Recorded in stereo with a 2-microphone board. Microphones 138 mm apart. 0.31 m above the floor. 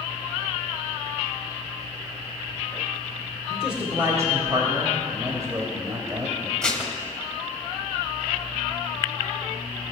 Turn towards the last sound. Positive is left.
turn(degrees=5)  # may be behind; listen again after turning